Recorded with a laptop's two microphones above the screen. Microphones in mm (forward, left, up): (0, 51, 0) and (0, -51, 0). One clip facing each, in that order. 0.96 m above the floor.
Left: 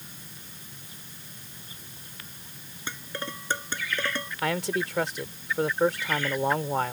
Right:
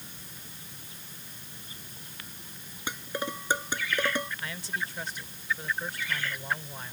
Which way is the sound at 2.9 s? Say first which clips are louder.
Right 2 dB; 15° right (ahead or behind).